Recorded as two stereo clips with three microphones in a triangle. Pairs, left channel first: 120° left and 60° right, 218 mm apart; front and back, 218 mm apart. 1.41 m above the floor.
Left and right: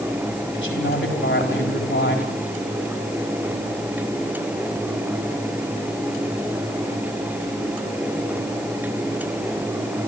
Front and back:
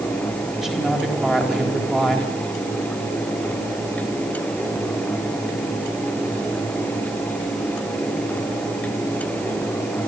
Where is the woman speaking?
90° left, 4 m.